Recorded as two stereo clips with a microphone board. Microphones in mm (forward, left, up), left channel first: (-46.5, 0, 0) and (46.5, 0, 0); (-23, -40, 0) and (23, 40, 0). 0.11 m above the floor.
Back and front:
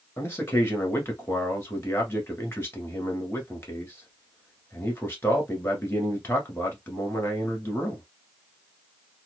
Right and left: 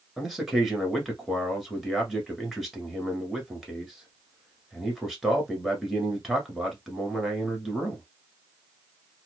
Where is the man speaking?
145° left, 1.2 m.